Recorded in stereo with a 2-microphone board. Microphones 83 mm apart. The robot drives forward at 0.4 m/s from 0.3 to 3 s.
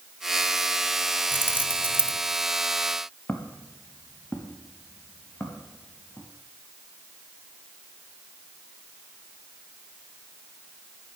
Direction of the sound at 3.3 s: 20° left (ahead or behind).